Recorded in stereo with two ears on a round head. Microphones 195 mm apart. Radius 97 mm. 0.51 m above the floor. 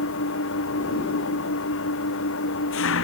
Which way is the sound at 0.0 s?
65° left (ahead or behind).